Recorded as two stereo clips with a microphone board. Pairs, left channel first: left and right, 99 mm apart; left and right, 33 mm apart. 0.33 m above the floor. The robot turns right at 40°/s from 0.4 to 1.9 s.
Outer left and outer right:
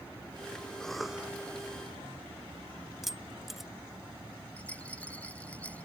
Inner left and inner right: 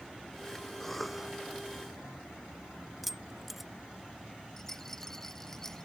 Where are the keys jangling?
Centre (ahead or behind).